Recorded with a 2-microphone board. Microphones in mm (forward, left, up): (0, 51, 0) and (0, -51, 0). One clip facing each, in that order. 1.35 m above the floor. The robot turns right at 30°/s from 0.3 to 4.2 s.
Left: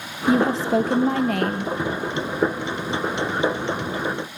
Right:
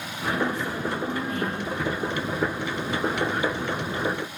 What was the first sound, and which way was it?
A woman speaking, 80° left.